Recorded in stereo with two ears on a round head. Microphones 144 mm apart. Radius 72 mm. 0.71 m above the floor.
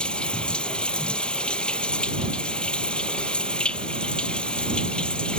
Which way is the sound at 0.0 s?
5° left (ahead or behind).